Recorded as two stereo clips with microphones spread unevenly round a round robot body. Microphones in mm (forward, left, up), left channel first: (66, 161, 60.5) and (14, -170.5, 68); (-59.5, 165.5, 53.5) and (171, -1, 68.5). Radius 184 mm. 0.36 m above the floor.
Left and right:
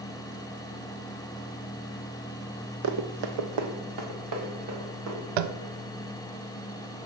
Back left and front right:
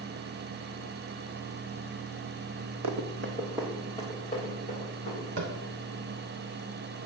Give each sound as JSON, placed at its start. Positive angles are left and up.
{"t": 2.8, "sound": "running footsteps", "azimuth_deg": -50, "distance_m": 0.8}
{"t": 5.4, "sound": "tapping", "azimuth_deg": -95, "distance_m": 0.5}